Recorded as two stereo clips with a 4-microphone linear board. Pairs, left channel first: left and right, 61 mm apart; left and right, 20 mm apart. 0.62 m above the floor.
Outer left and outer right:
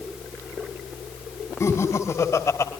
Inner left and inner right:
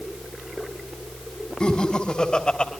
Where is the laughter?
50° left (ahead or behind), 3 m; by 2.7 s 55° left (ahead or behind), 3 m.